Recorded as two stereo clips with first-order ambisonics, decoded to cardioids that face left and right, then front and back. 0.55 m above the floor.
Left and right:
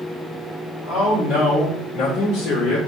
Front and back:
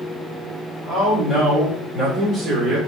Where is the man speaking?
55° left, 1.7 m; by 2.8 s 110° left, 1.5 m.